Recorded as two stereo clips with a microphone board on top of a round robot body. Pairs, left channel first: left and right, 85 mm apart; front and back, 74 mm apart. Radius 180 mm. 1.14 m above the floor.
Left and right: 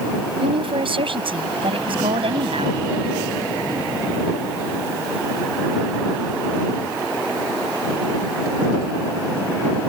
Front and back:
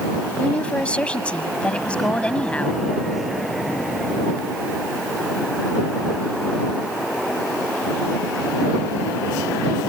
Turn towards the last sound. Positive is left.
turn(degrees=-75)